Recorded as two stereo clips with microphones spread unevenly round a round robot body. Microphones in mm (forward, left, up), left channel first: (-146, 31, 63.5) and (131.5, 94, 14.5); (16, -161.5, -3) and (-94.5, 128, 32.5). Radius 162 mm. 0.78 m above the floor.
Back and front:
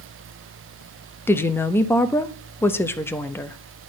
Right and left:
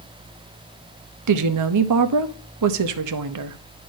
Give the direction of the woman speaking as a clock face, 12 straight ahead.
9 o'clock.